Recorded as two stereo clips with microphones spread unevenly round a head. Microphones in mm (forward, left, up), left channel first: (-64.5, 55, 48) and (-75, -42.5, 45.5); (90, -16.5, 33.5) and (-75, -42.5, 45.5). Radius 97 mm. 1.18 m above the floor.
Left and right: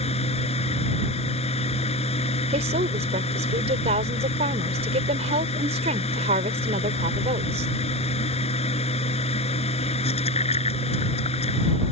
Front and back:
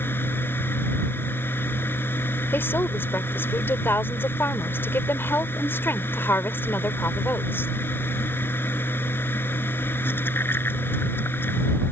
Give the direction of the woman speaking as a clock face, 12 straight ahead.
2 o'clock.